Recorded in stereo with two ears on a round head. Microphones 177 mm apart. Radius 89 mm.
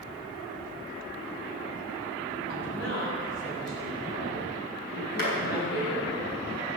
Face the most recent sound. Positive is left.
turn(degrees=50)  # may be behind; listen again after turning